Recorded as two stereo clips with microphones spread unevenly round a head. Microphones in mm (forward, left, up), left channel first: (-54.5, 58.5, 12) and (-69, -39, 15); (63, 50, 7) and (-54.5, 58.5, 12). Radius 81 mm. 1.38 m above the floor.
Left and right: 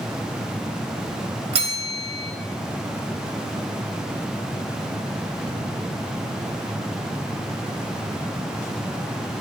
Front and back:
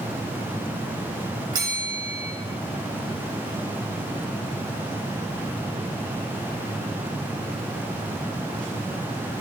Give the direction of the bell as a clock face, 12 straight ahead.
4 o'clock.